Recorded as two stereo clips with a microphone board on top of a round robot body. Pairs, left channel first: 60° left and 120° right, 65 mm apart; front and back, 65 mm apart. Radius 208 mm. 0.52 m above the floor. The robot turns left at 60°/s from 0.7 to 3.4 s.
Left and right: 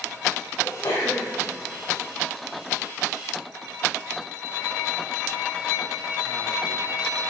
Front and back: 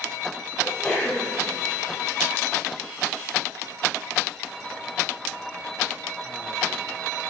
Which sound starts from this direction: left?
A sneeze, at 0.6 s.